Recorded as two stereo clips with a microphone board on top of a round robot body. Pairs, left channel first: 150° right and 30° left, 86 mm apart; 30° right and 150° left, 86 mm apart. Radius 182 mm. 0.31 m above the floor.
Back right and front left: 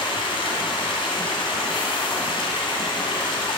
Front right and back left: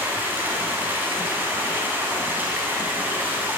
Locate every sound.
0.0 s running water: 140° right, 2.5 m